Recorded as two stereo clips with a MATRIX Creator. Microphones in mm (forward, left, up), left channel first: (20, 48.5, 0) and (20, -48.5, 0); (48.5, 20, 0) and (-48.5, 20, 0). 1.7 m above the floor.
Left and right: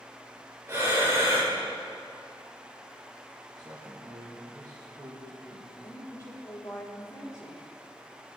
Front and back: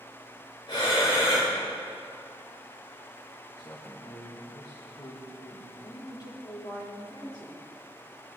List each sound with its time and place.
0.7 s breathing: 30° right, 4.5 m
3.6 s a man speaking: 40° right, 2 m
5.8 s a woman speaking: 35° left, 4 m